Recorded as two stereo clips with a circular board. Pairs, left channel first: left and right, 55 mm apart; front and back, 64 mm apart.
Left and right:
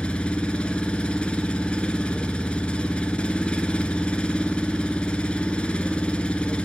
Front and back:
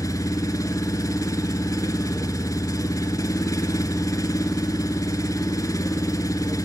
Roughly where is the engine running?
Ahead.